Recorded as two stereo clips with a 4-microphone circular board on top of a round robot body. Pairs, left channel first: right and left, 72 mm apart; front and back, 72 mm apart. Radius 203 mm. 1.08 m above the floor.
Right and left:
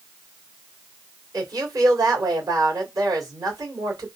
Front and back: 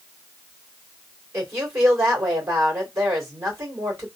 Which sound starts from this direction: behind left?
A woman speaking, at 1.3 s.